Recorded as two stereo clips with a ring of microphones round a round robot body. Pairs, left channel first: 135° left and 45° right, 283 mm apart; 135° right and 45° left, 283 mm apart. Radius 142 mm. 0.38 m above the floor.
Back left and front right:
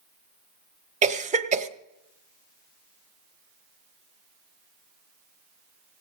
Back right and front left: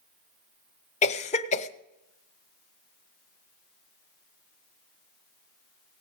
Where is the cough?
90° right, 1.0 m.